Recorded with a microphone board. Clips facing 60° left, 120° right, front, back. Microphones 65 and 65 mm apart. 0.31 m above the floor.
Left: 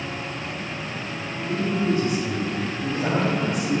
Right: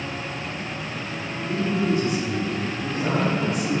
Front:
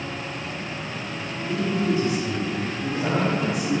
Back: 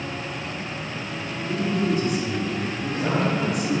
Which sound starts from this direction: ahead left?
A man speaking, at 1.4 s.